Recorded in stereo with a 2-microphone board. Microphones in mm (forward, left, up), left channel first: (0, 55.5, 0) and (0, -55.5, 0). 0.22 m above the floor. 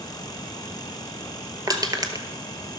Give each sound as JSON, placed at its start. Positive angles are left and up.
{"t": 1.7, "sound": "crushing", "side_deg": -35, "distance_m": 1.0}